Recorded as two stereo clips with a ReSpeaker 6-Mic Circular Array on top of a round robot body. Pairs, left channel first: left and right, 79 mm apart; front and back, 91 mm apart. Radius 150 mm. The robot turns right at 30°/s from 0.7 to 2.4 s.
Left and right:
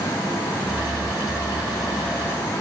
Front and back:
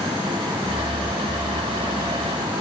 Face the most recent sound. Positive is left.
No sound to turn to.